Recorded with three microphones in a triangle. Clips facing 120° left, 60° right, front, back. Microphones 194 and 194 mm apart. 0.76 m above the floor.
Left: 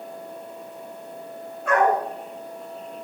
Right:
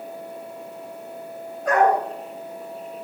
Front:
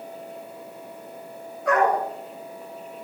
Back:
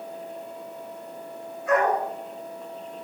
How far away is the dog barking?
About 5.5 m.